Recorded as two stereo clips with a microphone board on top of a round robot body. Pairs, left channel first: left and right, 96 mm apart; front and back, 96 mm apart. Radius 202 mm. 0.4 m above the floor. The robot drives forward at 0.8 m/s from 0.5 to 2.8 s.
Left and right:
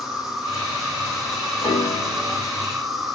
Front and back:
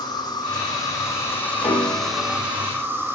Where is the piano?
70° left, 4.5 m; by 2.5 s 80° left, 4.5 m.